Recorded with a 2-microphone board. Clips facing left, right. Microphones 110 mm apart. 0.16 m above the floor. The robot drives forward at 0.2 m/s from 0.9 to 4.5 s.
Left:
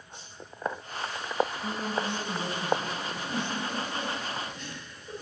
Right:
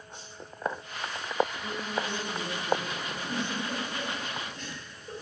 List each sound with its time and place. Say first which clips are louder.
1.6 s a woman speaking: left 2 dB; 25° left (ahead or behind), 1.9 m; by 2.9 s 20° left (ahead or behind), 2 m
3.0 s a giggle: left 1 dB; 40° right (ahead or behind), 3.5 m; by 5.1 s 45° right (ahead or behind), 3 m